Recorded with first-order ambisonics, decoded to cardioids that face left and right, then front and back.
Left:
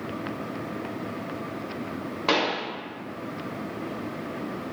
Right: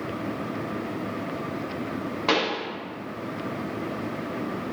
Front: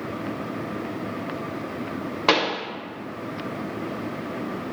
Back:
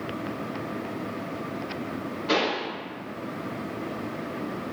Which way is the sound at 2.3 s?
Straight ahead.